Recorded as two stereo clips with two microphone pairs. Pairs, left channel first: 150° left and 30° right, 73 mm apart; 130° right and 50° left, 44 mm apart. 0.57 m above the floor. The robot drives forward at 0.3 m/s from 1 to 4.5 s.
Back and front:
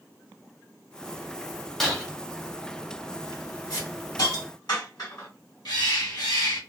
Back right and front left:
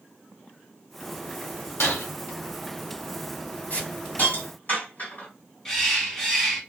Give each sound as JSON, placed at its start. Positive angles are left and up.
{"t": 1.8, "sound": "breaking glass", "azimuth_deg": -120, "distance_m": 1.2}
{"t": 3.7, "sound": "a hiss", "azimuth_deg": 180, "distance_m": 2.5}
{"t": 5.7, "sound": "a bird", "azimuth_deg": 150, "distance_m": 1.3}